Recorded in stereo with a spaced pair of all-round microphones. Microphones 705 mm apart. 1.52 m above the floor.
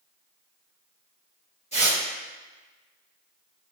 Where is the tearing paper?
10° left (ahead or behind), 1.3 m.